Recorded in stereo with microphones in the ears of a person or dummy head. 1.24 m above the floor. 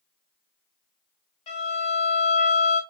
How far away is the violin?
About 1.5 m.